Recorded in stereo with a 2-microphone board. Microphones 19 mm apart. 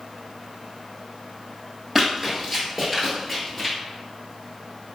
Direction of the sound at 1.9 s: 15° right (ahead or behind).